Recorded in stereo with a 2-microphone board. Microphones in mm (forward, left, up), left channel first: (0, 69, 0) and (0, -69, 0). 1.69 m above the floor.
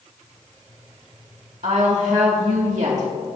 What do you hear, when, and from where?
1.6 s a woman speaking: 60° right (ahead or behind), 1.9 m